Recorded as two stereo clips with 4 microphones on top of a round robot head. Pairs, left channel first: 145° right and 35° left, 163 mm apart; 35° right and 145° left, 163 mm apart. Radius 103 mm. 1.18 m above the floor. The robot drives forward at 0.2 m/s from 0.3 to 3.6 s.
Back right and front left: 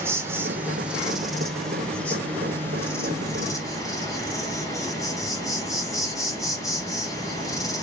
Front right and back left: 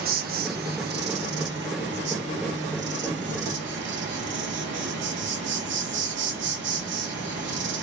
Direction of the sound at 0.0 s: 110° left.